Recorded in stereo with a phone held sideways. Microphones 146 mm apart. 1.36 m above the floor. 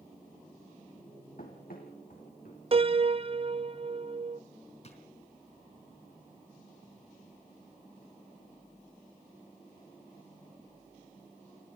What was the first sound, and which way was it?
Running footsteps, 75° left (ahead or behind).